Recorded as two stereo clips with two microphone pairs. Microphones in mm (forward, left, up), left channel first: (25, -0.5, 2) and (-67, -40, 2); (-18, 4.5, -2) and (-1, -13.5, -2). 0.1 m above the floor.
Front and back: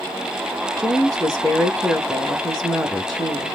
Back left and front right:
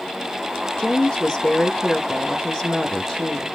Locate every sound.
0.8 s a woman speaking: 110° left, 1.2 m